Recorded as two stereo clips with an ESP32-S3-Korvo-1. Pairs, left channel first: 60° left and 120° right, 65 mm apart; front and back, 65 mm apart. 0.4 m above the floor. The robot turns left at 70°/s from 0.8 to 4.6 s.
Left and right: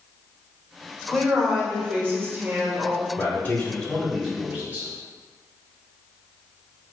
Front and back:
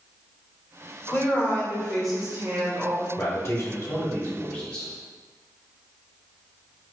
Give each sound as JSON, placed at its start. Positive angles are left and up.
{"t": 1.1, "sound": "a woman speaking", "azimuth_deg": -20, "distance_m": 1.4}
{"t": 3.2, "sound": "a man speaking", "azimuth_deg": 25, "distance_m": 1.7}